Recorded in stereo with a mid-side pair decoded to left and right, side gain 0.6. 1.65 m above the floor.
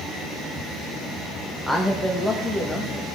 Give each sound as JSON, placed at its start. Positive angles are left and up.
{"t": 1.7, "sound": "a man speaking", "azimuth_deg": 5, "distance_m": 1.5}